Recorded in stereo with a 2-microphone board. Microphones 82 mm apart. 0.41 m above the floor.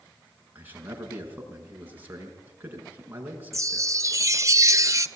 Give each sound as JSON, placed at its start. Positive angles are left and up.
{"t": 0.6, "sound": "a man speaking", "side_deg": -25, "distance_m": 6.0}
{"t": 3.5, "sound": "a chime", "side_deg": -40, "distance_m": 0.7}